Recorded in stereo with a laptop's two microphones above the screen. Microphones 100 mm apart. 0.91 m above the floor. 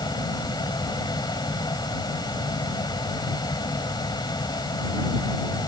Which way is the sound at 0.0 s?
45° left (ahead or behind).